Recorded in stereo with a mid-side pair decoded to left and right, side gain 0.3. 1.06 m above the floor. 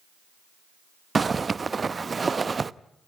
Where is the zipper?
45° right, 0.6 m.